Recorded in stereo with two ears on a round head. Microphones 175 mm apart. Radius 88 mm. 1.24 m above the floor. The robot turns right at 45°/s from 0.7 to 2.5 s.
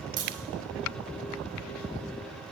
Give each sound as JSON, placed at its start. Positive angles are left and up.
{"t": 0.2, "sound": "a crack", "side_deg": -20, "distance_m": 3.5}